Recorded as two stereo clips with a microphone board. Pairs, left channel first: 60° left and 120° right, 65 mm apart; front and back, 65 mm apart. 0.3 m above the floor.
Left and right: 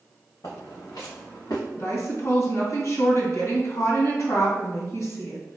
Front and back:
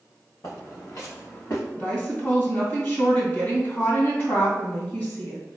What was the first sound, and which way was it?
Footsteps, 30° left.